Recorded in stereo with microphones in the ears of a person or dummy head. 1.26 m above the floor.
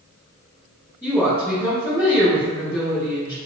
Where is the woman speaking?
10° left (ahead or behind), 1.6 m.